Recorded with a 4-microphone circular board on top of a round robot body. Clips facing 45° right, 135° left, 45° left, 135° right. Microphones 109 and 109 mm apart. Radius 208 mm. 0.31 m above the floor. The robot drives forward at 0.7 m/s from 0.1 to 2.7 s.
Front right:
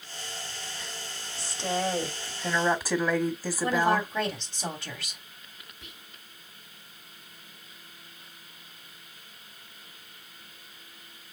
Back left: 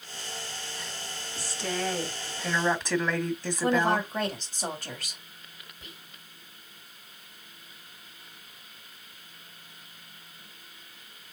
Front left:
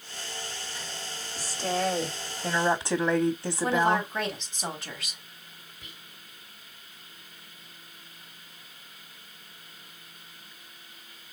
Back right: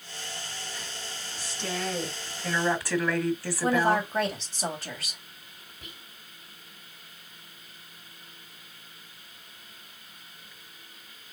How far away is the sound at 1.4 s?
About 1.9 m.